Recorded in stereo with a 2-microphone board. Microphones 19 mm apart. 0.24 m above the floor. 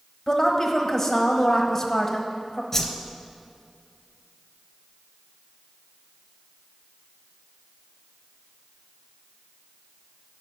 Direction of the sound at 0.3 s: 20° left (ahead or behind).